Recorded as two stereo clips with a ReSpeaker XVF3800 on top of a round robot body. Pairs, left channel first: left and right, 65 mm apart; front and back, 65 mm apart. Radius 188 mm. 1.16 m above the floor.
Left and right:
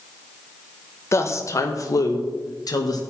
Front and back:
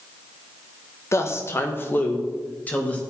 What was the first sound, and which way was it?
A woman speaking, 45° left.